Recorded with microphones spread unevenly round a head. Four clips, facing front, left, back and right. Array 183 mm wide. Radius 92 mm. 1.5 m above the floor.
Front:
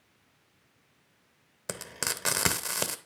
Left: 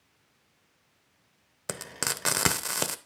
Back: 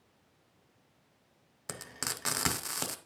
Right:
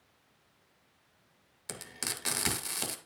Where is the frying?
55° left, 0.8 m.